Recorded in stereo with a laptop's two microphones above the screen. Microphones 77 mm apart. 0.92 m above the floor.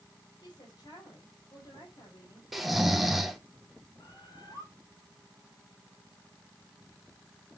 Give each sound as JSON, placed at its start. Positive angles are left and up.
{"t": 0.4, "sound": "a woman speaking", "side_deg": 65, "distance_m": 5.5}
{"t": 2.5, "sound": "snoring", "side_deg": 0, "distance_m": 1.3}
{"t": 4.0, "sound": "a bird", "side_deg": 70, "distance_m": 4.5}